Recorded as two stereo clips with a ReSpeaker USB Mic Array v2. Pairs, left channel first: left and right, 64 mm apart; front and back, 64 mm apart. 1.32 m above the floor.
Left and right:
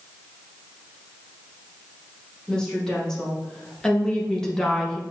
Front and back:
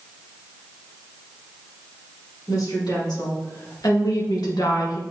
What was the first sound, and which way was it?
A woman speaking, 10° left.